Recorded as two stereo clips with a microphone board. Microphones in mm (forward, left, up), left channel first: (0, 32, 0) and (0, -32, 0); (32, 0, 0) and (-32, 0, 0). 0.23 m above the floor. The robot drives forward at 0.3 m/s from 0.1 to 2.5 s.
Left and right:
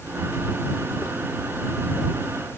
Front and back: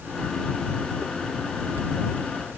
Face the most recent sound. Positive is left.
No sound to turn to.